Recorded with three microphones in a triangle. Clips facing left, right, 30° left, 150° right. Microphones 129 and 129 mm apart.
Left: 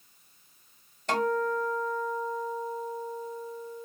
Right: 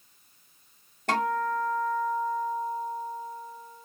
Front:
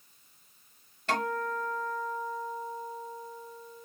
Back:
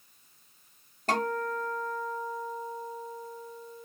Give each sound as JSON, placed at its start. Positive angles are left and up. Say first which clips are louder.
{"t": 1.1, "sound": "a guitar", "louder": "even, back 1 dB", "azimuth_deg": -105, "distance_m": 1.5}